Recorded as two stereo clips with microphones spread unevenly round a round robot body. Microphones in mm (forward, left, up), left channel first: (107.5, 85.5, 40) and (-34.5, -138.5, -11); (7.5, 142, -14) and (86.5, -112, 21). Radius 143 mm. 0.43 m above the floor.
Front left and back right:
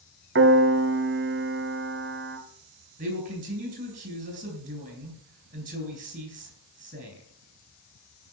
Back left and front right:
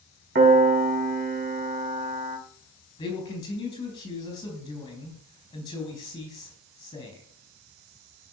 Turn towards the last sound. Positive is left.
turn(degrees=180)